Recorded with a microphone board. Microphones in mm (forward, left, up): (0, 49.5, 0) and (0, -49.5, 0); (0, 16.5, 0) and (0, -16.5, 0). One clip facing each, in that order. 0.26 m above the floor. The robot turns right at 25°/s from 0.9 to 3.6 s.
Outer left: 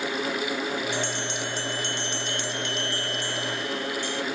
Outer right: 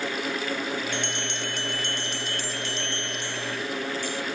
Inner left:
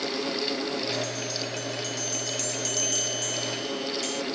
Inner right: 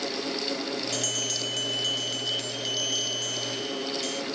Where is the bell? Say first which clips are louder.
Outer left 2 dB, inner right 1 dB; 80° right; by 4.2 s 10° right.